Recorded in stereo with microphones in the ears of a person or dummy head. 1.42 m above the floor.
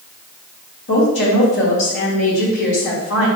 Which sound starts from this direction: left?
A woman speaking, at 0.9 s.